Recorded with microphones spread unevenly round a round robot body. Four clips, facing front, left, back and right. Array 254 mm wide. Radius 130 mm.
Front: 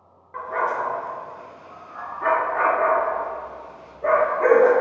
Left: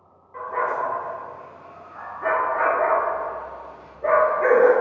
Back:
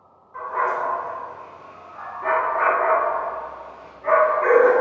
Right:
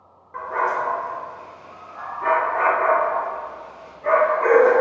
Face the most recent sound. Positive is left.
turn(degrees=35)